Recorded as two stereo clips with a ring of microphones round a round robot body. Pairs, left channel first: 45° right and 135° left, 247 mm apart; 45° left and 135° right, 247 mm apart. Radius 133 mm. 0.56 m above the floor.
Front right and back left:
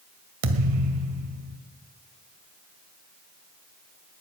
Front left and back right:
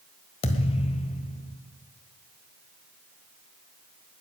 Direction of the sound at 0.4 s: 115° left.